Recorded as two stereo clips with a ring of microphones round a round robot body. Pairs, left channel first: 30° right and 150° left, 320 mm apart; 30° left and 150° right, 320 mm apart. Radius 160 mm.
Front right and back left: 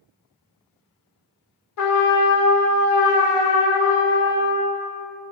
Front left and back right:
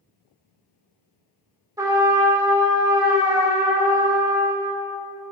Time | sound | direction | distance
1.8 | a trumpet | 70° right | 1.0 m